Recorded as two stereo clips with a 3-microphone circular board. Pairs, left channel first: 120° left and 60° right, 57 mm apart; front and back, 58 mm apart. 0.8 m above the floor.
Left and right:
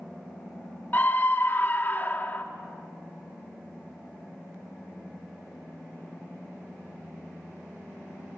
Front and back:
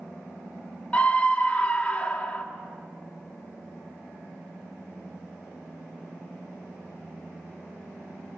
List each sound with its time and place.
0.9 s a scream: 65° left, 1.5 m